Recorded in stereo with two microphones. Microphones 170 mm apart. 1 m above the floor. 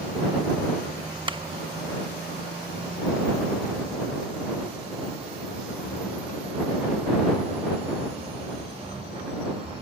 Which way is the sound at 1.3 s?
30° right (ahead or behind).